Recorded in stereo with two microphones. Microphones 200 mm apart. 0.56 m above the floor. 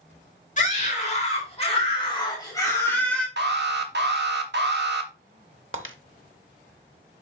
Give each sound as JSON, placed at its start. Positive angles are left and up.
{"t": 0.6, "sound": "a scream", "side_deg": 40, "distance_m": 2.5}
{"t": 3.4, "sound": "an alarm", "side_deg": -60, "distance_m": 1.1}
{"t": 5.7, "sound": "breaking glass", "side_deg": -80, "distance_m": 0.9}